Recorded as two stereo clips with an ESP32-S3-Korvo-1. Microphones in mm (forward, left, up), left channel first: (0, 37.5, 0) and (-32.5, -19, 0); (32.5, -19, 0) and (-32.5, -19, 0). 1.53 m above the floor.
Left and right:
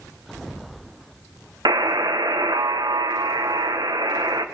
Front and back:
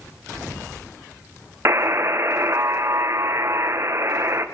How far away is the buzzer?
About 1.6 m.